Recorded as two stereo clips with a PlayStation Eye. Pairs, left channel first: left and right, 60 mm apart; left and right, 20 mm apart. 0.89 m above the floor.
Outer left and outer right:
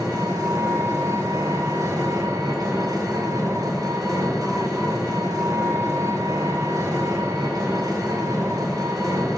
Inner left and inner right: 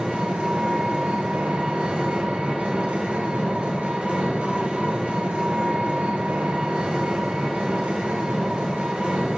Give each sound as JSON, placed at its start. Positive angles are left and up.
{"t": 0.0, "sound": "an engine running", "side_deg": -80, "distance_m": 3.0}